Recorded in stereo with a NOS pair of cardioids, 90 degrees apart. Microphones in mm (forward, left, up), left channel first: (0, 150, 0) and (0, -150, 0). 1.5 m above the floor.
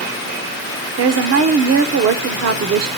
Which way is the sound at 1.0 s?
55° right.